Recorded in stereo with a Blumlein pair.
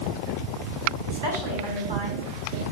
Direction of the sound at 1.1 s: 65° right.